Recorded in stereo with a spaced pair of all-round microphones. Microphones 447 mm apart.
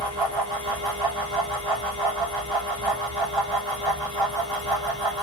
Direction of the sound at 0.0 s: 65° right (ahead or behind).